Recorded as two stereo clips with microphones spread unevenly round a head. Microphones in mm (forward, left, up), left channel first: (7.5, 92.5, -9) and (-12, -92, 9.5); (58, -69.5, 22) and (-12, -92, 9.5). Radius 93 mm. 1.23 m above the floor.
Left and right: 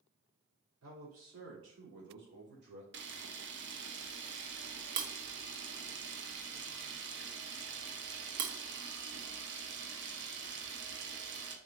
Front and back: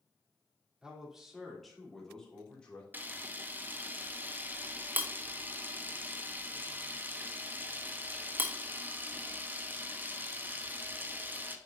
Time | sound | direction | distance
0.8 | a man speaking | 85° right | 3 m
2.9 | a camera shutter | 110° right | 1.0 m